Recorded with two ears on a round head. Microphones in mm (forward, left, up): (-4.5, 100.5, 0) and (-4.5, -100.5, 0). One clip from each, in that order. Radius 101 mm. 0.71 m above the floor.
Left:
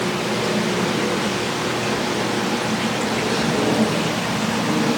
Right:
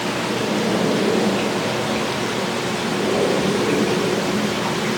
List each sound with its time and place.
Only background noise.